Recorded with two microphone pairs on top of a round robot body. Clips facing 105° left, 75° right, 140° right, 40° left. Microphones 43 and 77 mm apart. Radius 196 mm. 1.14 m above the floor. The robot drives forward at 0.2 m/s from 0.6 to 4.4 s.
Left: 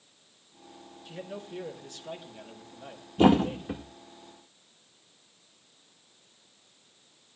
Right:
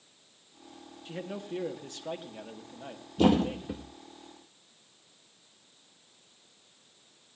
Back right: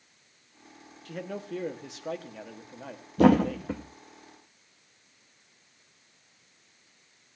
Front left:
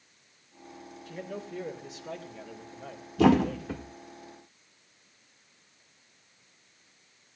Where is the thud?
Straight behind, 0.5 m.